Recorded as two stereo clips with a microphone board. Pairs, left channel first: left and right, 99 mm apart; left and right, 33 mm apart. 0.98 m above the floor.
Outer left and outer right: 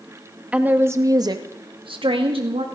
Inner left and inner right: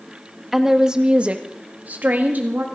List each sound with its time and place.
0.5 s a woman speaking: 15° right (ahead or behind), 1.5 m; by 2.6 s 75° right (ahead or behind), 2 m